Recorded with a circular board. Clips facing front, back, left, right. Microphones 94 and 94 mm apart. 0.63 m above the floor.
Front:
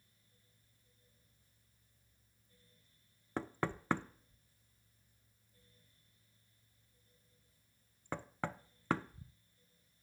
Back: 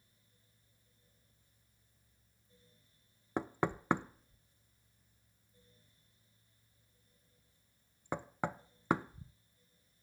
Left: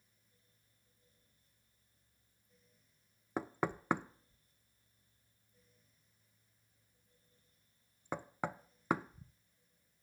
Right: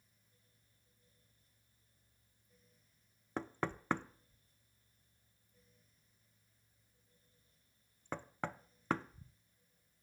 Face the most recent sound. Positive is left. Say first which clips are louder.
# back 3 dB, left 3 dB
turn(degrees=145)